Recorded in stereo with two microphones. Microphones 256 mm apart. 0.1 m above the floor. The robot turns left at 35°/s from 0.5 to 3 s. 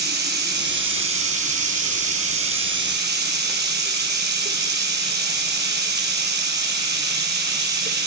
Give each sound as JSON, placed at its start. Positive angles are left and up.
{"t": 0.0, "sound": "running water", "azimuth_deg": -45, "distance_m": 0.8}